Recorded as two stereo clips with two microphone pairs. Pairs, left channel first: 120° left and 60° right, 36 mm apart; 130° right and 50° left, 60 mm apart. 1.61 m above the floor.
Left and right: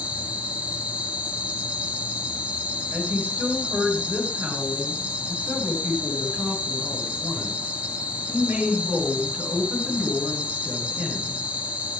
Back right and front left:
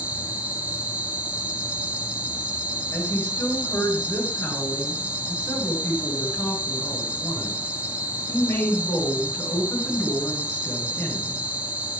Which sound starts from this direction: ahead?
An insect, at 0.0 s.